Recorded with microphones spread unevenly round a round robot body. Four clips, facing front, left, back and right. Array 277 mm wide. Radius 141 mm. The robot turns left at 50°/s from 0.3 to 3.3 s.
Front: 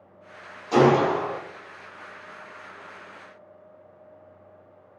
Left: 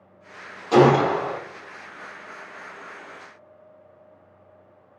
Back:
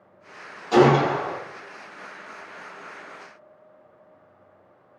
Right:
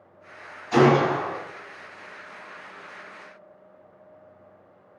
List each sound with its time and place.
0.7 s a gunshot: 95° left, 0.9 m; by 1.4 s 60° left, 0.9 m